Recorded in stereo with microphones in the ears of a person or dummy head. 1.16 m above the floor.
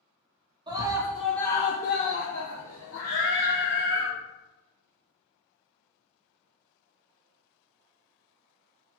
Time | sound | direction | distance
0.7 | a scream | 20° right (ahead or behind) | 1.0 m
3.1 | singing | 70° left (ahead or behind) | 3 m